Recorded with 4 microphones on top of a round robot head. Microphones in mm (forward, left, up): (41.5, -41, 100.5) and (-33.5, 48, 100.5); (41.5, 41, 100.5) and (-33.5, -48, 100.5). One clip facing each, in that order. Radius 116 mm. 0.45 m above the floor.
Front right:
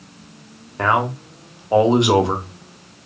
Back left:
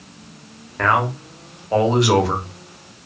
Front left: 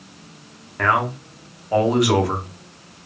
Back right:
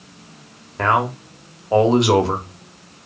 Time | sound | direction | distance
0.8 | a man speaking | 100° right | 0.8 m